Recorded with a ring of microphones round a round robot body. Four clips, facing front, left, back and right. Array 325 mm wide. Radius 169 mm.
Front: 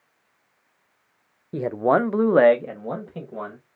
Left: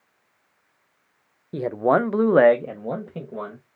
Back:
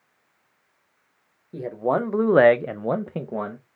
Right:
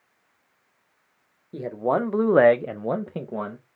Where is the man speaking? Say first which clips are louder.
Left 4 dB, front 4 dB; 40° left, 0.8 m; by 3.6 s 150° right, 1.0 m.